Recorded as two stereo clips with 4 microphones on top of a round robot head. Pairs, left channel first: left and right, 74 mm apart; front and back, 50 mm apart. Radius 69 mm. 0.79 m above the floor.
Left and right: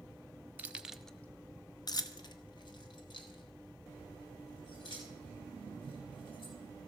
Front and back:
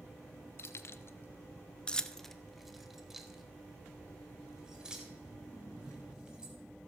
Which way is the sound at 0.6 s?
25° right.